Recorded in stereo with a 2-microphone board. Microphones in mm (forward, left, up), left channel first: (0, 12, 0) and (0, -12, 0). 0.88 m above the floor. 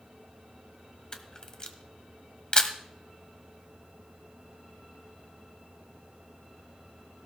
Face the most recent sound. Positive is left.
turn(degrees=35)  # may be behind; listen again after turning